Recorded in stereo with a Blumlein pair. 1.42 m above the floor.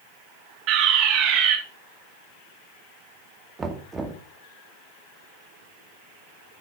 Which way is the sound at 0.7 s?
35° right.